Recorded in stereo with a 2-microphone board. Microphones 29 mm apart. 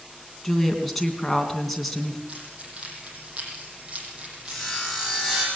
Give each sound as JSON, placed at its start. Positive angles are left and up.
{"t": 0.4, "sound": "a woman speaking", "side_deg": 0, "distance_m": 3.0}
{"t": 2.3, "sound": "keys jangling", "side_deg": -40, "distance_m": 6.0}
{"t": 4.5, "sound": "sawing", "side_deg": 0, "distance_m": 9.0}